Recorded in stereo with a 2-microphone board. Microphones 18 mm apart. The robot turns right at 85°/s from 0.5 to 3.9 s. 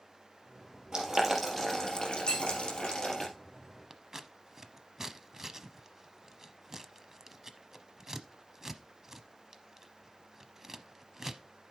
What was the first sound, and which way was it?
Boiling, 35° right (ahead or behind).